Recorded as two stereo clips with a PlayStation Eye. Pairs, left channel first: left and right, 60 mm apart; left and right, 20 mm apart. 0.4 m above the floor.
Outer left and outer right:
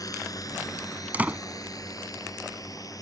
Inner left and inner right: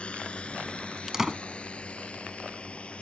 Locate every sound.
0.0 s a drone: 75° left (ahead or behind)
1.1 s a door slam: 30° right (ahead or behind)